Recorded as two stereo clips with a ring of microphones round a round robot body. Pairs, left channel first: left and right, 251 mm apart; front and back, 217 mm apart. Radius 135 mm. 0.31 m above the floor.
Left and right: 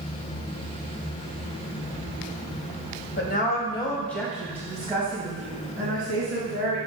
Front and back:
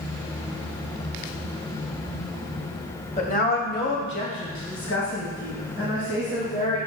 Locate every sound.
3.2 s a woman speaking: 50° left, 1.7 m; by 6.8 s 40° right, 4 m